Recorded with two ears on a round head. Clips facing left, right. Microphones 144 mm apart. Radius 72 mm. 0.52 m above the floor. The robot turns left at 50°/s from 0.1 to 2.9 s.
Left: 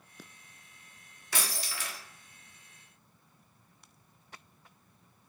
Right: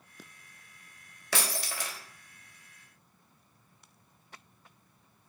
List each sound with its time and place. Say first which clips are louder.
1.3 s breaking glass: right 4 dB; 120° right, 0.6 m; by 2.0 s 155° right, 0.6 m